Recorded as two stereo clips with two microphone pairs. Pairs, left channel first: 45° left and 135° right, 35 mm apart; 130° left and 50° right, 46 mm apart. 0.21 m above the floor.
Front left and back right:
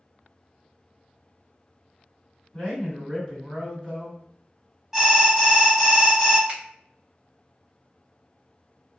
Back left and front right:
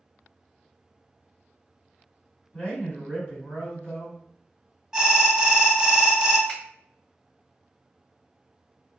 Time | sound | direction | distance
2.5 | a man speaking | 125° left | 2.0 m
4.9 | an alarm | 80° right | 0.7 m
6.5 | a finger snap | 165° left | 1.9 m